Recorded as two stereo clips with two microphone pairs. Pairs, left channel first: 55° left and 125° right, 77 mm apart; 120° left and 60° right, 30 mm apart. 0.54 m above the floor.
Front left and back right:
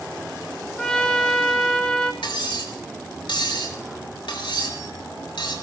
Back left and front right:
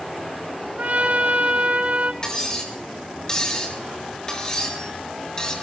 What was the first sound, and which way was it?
A trumpet, 25° right.